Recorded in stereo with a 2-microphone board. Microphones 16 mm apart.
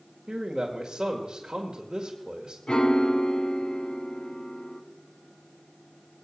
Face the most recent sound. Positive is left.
turn(degrees=60)  # may be behind; listen again after turning